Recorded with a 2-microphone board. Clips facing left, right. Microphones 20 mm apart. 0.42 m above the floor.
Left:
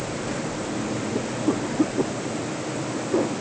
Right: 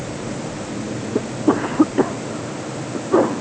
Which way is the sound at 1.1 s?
75° right (ahead or behind).